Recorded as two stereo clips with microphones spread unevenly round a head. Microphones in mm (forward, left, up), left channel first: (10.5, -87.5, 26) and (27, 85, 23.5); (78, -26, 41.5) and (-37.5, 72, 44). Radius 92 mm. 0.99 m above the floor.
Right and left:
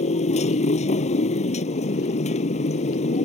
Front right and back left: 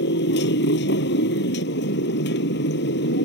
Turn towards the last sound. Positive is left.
turn(degrees=-45)